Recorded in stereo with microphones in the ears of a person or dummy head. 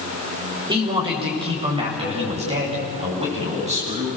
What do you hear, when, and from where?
0.7 s a man speaking: 35° right (ahead or behind), 4.5 m; by 4.1 s 40° right (ahead or behind), 8.5 m